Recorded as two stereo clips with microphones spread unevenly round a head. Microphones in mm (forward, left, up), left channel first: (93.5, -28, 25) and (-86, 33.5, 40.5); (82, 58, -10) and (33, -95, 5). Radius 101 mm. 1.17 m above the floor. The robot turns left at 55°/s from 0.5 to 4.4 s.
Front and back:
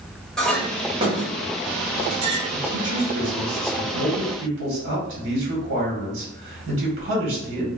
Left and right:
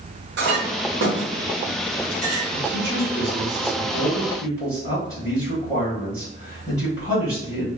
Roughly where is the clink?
Right.